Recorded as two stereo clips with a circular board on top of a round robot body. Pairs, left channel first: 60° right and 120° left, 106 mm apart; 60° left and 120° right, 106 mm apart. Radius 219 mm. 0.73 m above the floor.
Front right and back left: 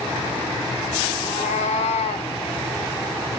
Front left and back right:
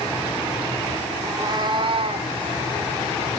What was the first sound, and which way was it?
A cat meowing, 55° right.